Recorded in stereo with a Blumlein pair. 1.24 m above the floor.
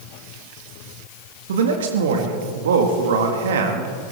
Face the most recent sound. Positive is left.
turn(degrees=-60)